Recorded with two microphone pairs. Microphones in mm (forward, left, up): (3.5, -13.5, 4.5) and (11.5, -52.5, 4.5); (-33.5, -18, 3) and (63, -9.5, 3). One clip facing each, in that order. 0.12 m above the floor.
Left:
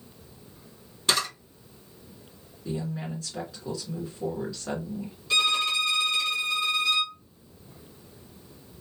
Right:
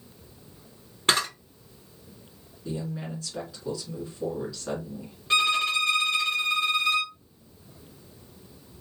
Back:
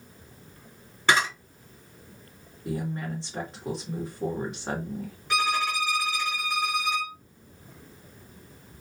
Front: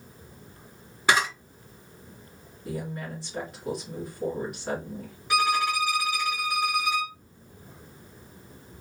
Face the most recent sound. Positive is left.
turn(degrees=-80)